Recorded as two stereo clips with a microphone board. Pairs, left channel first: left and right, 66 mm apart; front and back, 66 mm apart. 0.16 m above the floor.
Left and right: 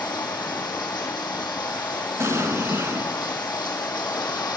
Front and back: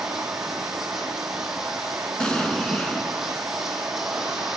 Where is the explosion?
70° right, 0.9 m.